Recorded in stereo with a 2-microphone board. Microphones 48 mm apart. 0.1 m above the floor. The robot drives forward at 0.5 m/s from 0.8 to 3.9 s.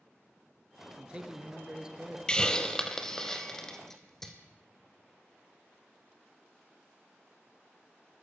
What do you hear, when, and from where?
1.0 s a man speaking: 20° right (ahead or behind), 1.5 m; by 2.2 s 15° right (ahead or behind), 1.8 m
2.3 s a hiss: 15° left (ahead or behind), 0.8 m; by 4.3 s 10° left (ahead or behind), 1.6 m